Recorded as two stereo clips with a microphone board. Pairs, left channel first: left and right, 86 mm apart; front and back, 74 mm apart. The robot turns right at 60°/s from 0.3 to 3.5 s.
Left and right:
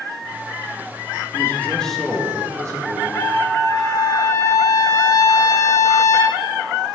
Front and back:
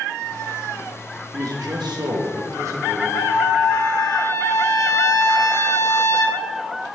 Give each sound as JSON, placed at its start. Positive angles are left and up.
{"t": 1.3, "sound": "a man speaking", "azimuth_deg": 140, "distance_m": 1.7}
{"t": 3.1, "sound": "a trumpet", "azimuth_deg": 20, "distance_m": 1.1}